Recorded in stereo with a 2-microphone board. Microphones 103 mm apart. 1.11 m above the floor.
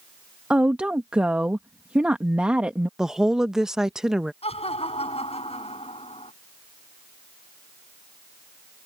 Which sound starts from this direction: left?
Laughter, at 4.4 s.